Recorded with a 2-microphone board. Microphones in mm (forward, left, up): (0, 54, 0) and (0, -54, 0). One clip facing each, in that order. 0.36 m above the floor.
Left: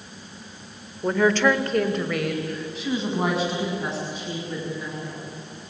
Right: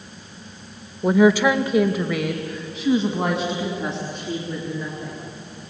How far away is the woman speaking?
About 1.1 m.